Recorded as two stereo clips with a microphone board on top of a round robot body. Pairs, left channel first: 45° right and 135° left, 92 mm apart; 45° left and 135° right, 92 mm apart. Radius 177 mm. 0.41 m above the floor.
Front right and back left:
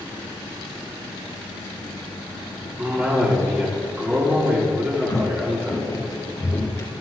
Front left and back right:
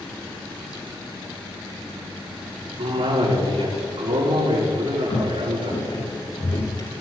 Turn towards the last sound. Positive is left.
turn(degrees=15)